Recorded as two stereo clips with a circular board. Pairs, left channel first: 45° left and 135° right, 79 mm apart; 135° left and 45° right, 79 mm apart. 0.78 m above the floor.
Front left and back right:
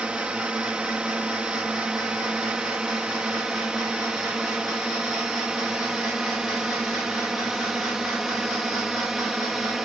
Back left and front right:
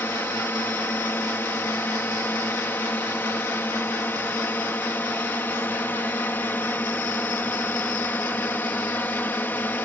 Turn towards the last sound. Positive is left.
turn(degrees=145)